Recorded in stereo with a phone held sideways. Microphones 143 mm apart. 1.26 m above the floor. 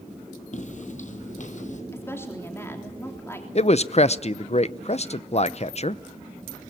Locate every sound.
0.5 s footsteps: 55° left (ahead or behind), 2 m
1.9 s a woman speaking: 15° left (ahead or behind), 3.5 m
3.5 s a man speaking: 50° left (ahead or behind), 0.7 m